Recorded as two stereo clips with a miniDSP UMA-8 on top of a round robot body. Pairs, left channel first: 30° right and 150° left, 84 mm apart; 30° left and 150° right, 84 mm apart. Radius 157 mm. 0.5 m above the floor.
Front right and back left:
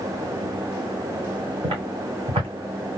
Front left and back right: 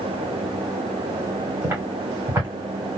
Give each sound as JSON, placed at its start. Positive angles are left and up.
{"t": 1.6, "sound": "footsteps", "azimuth_deg": 145, "distance_m": 3.0}